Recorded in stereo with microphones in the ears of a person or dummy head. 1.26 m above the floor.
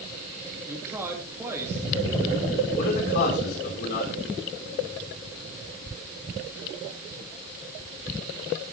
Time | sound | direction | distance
0.7 | a man speaking | 15° right (ahead or behind) | 1.6 m
2.8 | a man speaking | 60° left (ahead or behind) | 6.5 m